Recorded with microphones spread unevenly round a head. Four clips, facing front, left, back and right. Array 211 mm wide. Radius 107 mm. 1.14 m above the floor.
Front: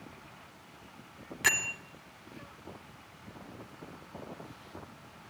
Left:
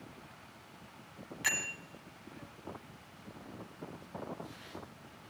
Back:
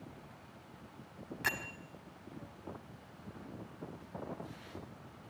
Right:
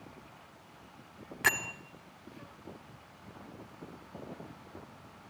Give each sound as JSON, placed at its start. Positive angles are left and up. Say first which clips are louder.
{"t": 1.4, "sound": "a bell", "louder": "right 7 dB, front 6 dB", "azimuth_deg": -65, "distance_m": 1.4}